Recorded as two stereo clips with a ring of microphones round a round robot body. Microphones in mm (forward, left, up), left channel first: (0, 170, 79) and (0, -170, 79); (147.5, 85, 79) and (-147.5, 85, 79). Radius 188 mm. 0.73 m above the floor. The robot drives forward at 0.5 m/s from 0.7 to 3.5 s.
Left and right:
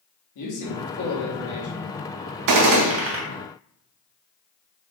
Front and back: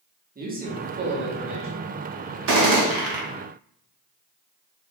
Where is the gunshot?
125° right, 0.6 m; by 3.2 s 145° right, 0.8 m.